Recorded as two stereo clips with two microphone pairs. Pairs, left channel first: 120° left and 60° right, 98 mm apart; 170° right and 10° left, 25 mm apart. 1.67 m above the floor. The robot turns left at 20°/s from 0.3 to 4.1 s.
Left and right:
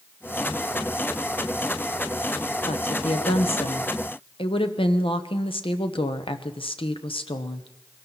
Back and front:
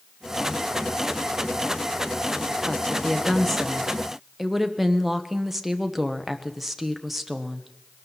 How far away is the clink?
I don't hear a clink.